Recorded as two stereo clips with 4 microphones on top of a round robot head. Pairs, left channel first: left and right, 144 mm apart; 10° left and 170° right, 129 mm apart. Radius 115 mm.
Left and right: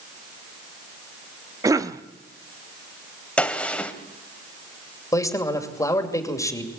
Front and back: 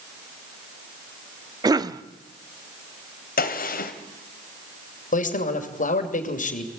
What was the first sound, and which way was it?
A cough, 140° right.